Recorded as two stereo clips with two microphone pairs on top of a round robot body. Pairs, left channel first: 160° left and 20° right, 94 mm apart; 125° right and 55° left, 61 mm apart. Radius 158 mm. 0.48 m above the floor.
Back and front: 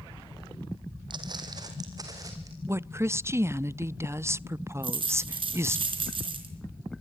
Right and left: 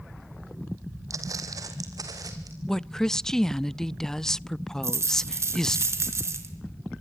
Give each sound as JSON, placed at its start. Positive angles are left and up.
{"t": 1.1, "sound": "footsteps", "azimuth_deg": 25, "distance_m": 1.6}
{"t": 2.7, "sound": "a woman speaking", "azimuth_deg": -55, "distance_m": 0.7}
{"t": 4.8, "sound": "a dropped coin", "azimuth_deg": 15, "distance_m": 4.0}